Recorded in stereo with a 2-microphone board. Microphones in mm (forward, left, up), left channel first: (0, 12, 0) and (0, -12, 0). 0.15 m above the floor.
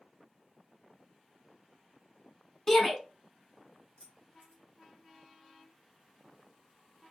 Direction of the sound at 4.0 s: 60° left (ahead or behind).